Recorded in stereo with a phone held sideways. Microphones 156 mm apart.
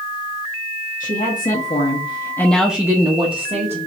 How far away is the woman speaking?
About 1.1 m.